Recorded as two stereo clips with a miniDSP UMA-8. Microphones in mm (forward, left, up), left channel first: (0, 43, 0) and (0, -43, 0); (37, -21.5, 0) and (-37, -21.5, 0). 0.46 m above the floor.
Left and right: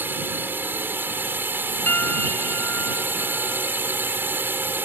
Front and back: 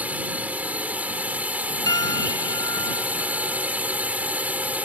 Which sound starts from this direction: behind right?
A drone, at 0.0 s.